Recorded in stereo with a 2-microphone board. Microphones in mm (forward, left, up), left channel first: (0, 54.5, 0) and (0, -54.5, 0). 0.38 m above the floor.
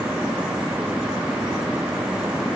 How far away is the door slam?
I don't hear a door slam.